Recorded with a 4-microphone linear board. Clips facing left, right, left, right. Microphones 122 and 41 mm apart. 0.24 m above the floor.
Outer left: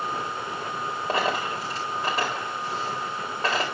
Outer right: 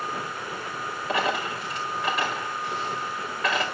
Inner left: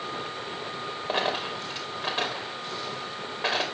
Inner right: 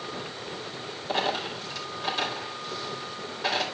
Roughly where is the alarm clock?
I don't hear an alarm clock.